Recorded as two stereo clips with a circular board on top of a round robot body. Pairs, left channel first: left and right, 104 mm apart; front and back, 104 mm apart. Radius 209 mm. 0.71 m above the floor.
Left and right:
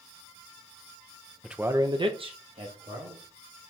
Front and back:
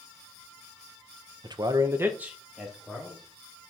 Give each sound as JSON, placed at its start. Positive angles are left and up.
{"t": 1.4, "sound": "a man speaking", "azimuth_deg": 180, "distance_m": 1.0}